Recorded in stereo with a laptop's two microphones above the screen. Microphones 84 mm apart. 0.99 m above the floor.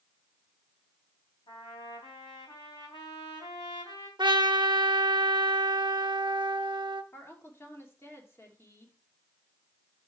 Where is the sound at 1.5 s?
75° left (ahead or behind), 3 m.